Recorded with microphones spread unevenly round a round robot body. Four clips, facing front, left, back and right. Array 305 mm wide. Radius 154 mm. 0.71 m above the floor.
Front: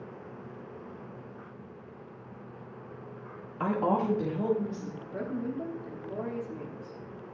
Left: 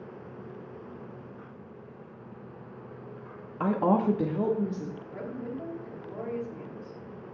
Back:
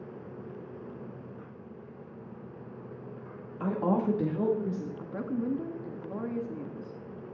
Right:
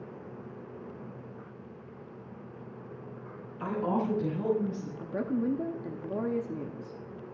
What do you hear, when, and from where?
3.6 s a woman speaking: 65° left, 1.2 m; by 4.9 s 130° left, 2 m
5.0 s a woman speaking: 120° right, 0.9 m